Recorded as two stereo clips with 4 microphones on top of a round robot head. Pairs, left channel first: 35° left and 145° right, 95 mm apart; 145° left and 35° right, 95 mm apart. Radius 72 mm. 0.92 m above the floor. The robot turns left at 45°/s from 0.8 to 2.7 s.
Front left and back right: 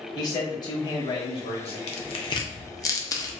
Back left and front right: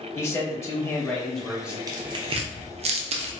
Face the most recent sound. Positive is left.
turn(degrees=-20)